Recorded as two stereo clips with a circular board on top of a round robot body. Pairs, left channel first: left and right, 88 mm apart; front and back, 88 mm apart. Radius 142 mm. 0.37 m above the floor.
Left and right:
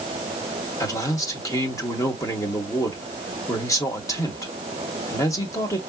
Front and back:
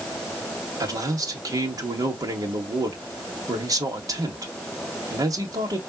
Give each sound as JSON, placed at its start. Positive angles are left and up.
{"t": 0.8, "sound": "a man speaking", "azimuth_deg": 140, "distance_m": 2.0}